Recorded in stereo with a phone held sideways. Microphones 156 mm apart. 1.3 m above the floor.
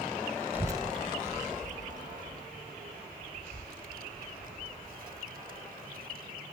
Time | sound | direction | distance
0.5 | a child speaking | 10° right (ahead or behind) | ?